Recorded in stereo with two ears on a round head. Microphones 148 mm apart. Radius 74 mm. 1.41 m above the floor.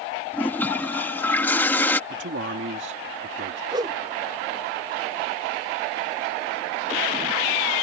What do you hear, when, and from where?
0.3 s a toilet flushing: 10° left (ahead or behind)
2.1 s a man speaking: 85° right
3.7 s a whoosh: 25° right (ahead or behind)